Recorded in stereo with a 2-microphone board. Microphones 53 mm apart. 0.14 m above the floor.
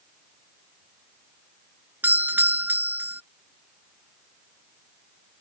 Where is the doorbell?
35° right (ahead or behind).